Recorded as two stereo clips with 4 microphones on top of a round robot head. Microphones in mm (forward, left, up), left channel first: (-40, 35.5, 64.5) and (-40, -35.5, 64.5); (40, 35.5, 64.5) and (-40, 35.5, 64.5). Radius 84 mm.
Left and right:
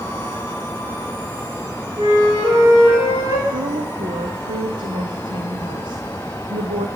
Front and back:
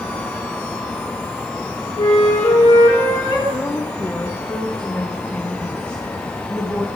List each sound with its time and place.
2.0 s a flute: 45° right, 4.5 m
3.5 s a woman speaking: 80° right, 1.1 m